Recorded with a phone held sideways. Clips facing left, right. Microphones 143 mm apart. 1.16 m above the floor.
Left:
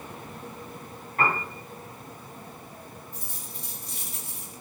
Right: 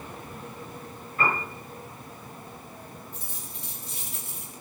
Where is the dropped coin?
40° left (ahead or behind), 2.5 m.